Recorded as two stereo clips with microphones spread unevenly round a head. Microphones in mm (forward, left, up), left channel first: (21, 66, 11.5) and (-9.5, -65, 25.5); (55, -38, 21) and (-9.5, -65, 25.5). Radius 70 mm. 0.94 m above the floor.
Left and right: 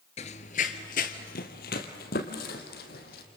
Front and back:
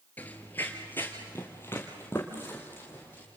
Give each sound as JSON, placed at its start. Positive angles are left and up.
{"t": 0.2, "sound": "running footsteps", "azimuth_deg": 95, "distance_m": 1.1}